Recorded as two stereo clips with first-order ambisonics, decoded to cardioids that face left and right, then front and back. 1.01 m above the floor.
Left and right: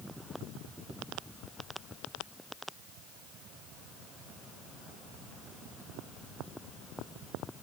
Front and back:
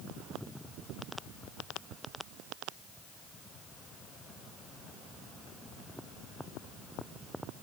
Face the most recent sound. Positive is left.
No sound to turn to.